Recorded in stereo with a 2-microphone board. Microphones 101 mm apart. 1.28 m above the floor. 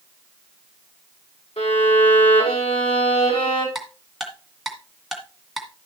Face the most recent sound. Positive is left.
turn(degrees=0)  # may be behind; listen again after turning